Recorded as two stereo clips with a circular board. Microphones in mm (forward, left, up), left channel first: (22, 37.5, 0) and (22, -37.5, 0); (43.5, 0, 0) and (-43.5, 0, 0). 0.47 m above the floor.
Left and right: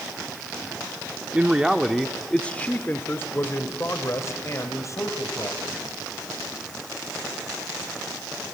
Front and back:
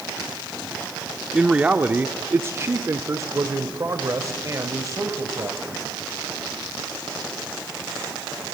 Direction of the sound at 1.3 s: 125° right.